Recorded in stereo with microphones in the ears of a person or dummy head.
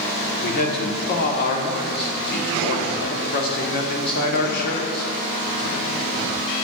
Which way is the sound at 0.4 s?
55° left (ahead or behind).